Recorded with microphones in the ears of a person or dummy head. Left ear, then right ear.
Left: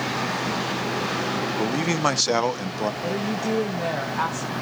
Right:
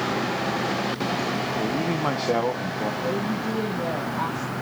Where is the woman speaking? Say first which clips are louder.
Even; 65° left (ahead or behind), 1.1 m.